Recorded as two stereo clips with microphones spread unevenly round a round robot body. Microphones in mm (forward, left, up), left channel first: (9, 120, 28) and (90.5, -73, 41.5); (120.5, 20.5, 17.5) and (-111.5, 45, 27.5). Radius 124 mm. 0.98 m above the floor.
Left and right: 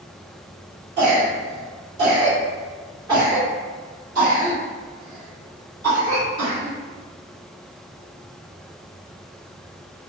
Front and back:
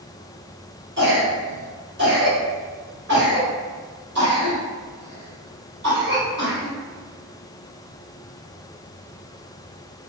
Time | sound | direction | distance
1.0 | a cough | 140° right | 1.7 m